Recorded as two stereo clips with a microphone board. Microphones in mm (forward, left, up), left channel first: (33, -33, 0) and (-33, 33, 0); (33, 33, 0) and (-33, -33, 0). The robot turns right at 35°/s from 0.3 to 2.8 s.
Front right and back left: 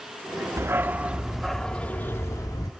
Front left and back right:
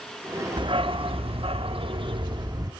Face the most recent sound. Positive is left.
turn(degrees=-85)